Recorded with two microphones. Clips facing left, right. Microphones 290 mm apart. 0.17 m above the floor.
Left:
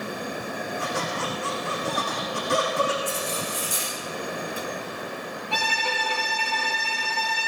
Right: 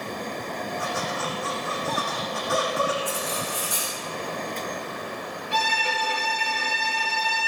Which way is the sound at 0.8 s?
30° left (ahead or behind).